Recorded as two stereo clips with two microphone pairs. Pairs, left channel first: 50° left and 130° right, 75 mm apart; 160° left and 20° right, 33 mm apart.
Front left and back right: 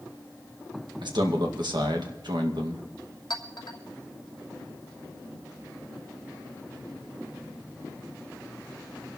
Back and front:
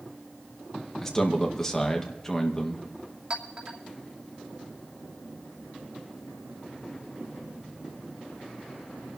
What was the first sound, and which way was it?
A man speaking, 130° right.